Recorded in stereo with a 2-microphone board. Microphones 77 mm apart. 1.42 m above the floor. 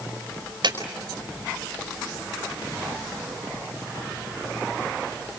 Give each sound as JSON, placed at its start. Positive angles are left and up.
{"t": 0.6, "sound": "a clap", "side_deg": -70, "distance_m": 5.0}